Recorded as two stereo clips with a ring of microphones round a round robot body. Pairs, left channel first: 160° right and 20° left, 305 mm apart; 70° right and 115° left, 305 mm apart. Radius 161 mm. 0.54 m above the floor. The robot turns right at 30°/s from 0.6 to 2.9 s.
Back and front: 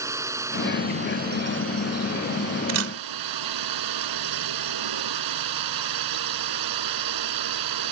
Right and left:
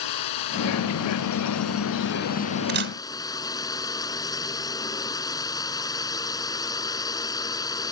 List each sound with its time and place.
0.0 s a drone: 60° right; by 7.9 s 10° left
2.7 s a camera shutter: 55° left; by 2.9 s 60° left